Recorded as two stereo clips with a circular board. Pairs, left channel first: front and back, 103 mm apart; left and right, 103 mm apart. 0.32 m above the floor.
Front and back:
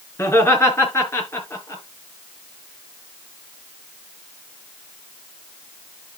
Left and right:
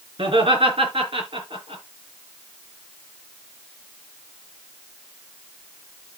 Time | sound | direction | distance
0.2 | laughter | 65° right | 3.5 m